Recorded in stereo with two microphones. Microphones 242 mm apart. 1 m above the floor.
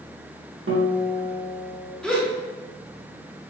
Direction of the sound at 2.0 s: 5° left (ahead or behind).